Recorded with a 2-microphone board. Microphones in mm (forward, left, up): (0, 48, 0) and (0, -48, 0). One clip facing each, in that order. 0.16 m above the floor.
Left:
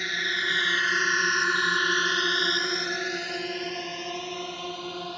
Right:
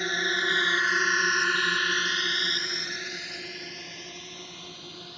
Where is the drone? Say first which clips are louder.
Right 2 dB; 35° right (ahead or behind); by 5.2 s 75° left (ahead or behind).